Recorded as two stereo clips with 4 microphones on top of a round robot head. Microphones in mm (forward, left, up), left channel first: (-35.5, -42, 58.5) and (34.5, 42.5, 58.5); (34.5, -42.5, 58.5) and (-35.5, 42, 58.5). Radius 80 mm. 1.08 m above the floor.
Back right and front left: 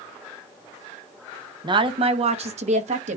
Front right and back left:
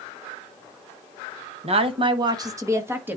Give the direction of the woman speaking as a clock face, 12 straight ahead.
9 o'clock.